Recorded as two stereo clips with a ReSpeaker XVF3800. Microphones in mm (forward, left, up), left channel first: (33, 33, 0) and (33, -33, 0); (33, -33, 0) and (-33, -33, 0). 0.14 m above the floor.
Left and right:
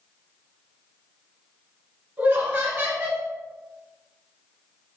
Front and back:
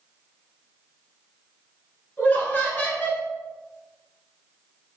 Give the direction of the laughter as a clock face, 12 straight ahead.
2 o'clock.